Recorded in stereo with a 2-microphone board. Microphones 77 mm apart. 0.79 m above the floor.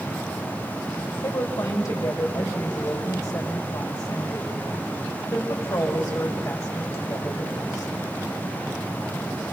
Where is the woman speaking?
50° left (ahead or behind), 4 m.